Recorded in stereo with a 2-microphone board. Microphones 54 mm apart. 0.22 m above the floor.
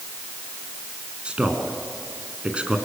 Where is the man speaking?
20° right (ahead or behind), 2.5 m.